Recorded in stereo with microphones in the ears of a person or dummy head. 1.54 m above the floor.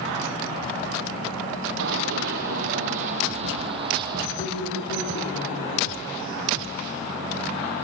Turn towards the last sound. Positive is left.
turn(degrees=50)  # may be behind; listen again after turning